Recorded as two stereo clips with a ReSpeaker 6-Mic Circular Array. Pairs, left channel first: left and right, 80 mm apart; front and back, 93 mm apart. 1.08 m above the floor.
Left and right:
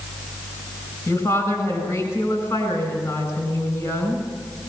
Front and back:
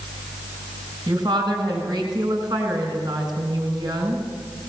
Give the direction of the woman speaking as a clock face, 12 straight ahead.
7 o'clock.